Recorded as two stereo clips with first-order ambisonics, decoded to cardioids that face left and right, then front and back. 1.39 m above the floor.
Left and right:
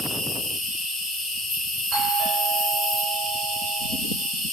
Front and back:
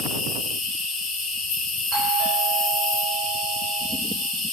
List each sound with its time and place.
0.0 s an insect: 20° left, 3 m
1.9 s a doorbell: 130° right, 4 m